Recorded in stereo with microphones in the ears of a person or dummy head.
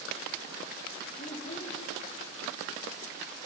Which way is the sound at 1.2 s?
30° left (ahead or behind).